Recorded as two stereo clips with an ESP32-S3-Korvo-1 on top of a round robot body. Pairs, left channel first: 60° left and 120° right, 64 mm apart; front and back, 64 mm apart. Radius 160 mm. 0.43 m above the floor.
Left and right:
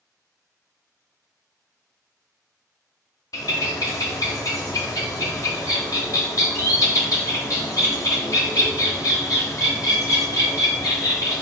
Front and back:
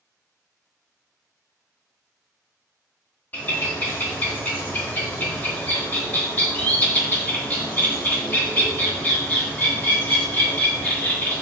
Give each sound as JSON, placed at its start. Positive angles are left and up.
{"t": 3.3, "sound": "a bird", "azimuth_deg": 55, "distance_m": 1.1}